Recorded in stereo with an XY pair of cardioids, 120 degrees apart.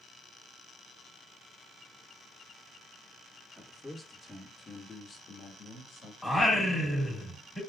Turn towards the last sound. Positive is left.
turn(degrees=15)